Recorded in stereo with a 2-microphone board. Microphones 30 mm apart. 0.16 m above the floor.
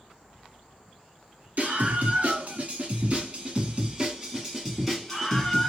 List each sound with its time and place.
1.6 s a scream: 55° right (ahead or behind), 2 m; by 5.7 s 15° left (ahead or behind), 1.6 m